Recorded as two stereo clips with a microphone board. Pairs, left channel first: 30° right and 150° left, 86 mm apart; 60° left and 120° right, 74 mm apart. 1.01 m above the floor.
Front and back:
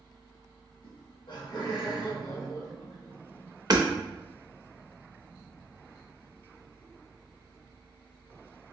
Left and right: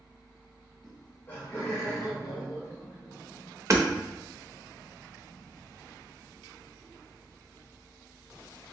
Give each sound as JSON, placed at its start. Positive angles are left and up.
{"t": 0.8, "sound": "laughter", "azimuth_deg": -25, "distance_m": 0.6}
{"t": 3.7, "sound": "hammering", "azimuth_deg": -170, "distance_m": 0.5}